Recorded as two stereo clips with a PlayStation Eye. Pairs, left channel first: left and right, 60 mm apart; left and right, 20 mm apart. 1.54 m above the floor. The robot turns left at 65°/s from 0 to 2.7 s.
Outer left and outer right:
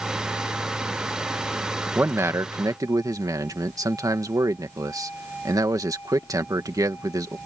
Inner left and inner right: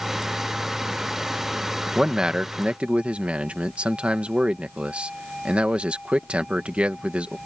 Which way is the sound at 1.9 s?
30° right.